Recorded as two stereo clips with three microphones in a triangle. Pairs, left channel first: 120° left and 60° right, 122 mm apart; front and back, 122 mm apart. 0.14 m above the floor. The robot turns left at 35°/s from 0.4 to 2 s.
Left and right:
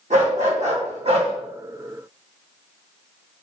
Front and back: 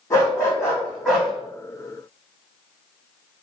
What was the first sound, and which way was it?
A dog barking, 60° right.